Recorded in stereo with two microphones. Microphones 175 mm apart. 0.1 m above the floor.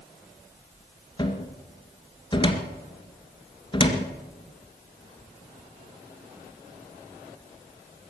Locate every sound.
1.2 s a cupboard door: 25° left (ahead or behind), 2 m